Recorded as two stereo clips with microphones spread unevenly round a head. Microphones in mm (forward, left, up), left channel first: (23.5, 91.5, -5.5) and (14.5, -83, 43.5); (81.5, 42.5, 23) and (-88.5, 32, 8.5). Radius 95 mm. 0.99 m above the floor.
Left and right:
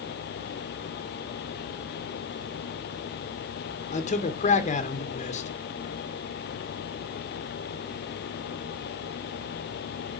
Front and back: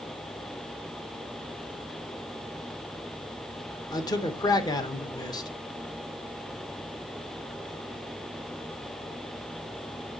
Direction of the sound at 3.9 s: 70° left.